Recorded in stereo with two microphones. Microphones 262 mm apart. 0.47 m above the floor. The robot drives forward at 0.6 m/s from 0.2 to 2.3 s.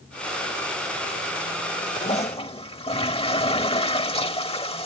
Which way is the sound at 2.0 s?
25° left (ahead or behind).